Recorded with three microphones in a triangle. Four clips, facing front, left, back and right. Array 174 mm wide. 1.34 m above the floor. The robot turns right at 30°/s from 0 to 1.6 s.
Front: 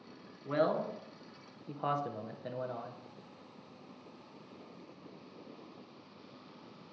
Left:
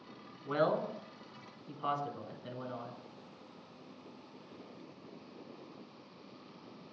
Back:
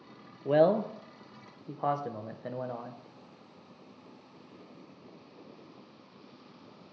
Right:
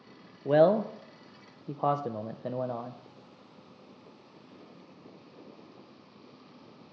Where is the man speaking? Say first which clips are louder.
Right 10 dB, back 7 dB; 130° right, 0.5 m; by 3.0 s 95° right, 0.5 m.